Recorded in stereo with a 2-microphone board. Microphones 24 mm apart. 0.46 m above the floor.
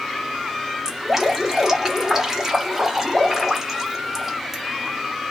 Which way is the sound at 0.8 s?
15° right (ahead or behind).